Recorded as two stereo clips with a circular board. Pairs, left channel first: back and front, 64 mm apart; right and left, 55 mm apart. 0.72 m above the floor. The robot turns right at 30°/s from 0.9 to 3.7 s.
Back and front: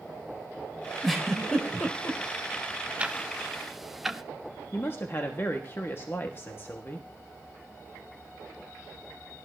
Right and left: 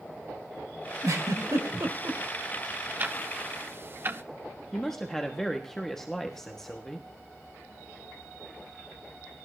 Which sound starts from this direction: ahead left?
Ticking, at 3.0 s.